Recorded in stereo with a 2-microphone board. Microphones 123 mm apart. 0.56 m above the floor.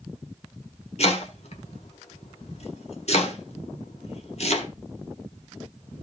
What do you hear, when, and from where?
1.0 s chopping: 55° left (ahead or behind), 1.8 m